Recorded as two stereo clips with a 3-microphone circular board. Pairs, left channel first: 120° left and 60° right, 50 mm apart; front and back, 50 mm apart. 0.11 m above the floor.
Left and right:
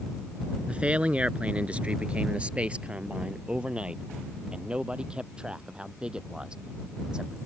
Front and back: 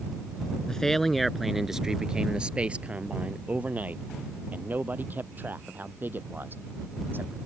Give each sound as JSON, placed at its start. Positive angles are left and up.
{"t": 0.7, "sound": "a man speaking", "azimuth_deg": -60}